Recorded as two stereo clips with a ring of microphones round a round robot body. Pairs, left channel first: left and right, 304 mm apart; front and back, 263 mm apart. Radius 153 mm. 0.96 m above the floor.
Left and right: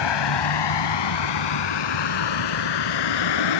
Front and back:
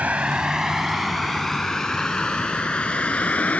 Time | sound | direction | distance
0.0 | a vehicle | 95° left | ?